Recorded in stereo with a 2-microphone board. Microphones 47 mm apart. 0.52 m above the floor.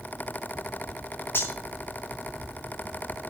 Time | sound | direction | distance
1.4 | cutlery clinking | 60° left (ahead or behind) | 3 m